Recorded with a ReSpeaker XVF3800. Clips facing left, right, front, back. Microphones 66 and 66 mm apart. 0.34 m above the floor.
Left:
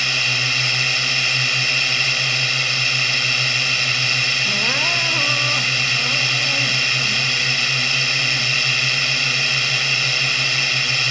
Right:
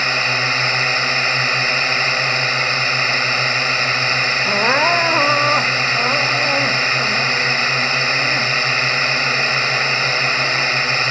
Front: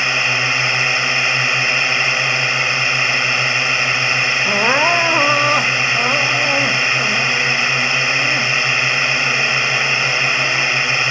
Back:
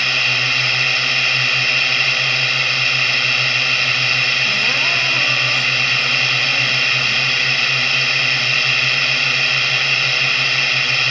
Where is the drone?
60° right.